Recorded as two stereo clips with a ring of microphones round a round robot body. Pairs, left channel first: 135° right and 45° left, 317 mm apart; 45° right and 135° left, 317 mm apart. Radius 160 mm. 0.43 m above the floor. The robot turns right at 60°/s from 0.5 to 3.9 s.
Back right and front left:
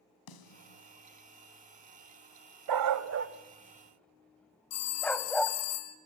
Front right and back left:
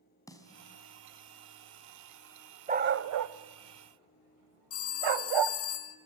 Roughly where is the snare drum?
Behind right.